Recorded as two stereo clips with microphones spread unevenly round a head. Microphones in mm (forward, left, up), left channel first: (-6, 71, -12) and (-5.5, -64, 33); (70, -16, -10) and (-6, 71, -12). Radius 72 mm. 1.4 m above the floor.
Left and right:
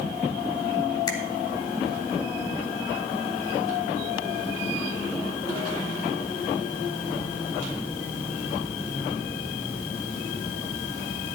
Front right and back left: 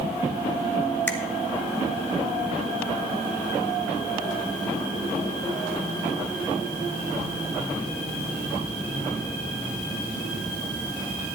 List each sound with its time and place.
1.1 s a finger snap: 25° left, 1.6 m